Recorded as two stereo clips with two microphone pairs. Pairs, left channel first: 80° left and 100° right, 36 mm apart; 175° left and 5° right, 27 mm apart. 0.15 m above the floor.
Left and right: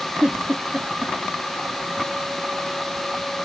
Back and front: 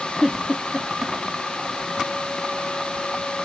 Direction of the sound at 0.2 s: 70° right.